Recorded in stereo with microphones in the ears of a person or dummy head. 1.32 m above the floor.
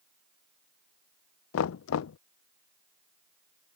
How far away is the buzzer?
No buzzer in this recording.